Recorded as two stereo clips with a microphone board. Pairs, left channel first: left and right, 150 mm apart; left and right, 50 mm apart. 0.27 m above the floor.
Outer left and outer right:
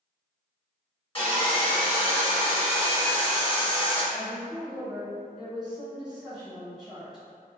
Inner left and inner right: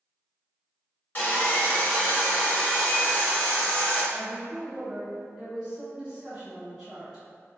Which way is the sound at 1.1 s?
35° left (ahead or behind).